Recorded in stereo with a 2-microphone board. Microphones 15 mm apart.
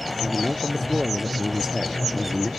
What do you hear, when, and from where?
0.2 s a man speaking: 30° right (ahead or behind); by 2.5 s 5° right (ahead or behind)